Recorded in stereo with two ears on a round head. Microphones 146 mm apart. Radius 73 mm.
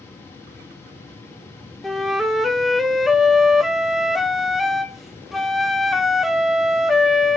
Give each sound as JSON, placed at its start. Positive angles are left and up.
{"t": 1.8, "sound": "a flute", "side_deg": 0, "distance_m": 1.0}